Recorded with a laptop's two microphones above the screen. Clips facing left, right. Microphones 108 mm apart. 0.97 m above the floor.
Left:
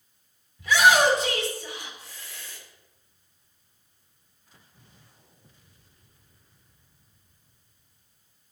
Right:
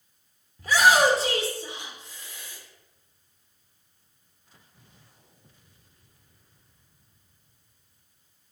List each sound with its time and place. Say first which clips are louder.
0.6 s a shout: even; 40° right (ahead or behind), 2.5 m; by 2.6 s 15° right (ahead or behind), 2.5 m